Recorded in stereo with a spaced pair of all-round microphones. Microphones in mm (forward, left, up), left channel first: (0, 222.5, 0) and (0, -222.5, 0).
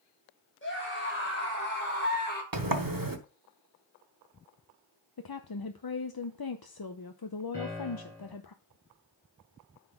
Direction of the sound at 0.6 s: 25° left (ahead or behind).